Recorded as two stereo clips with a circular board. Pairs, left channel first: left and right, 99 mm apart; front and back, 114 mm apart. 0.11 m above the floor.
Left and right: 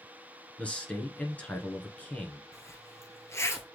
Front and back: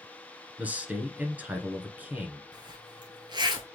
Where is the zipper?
145° left, 1.0 m.